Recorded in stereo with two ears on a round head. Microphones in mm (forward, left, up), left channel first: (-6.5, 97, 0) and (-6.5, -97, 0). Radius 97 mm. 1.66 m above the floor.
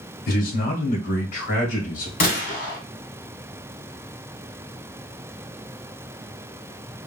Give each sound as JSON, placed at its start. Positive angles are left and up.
{"t": 0.3, "sound": "a man speaking", "side_deg": 40, "distance_m": 2.0}
{"t": 2.2, "sound": "a gunshot", "side_deg": 45, "distance_m": 1.8}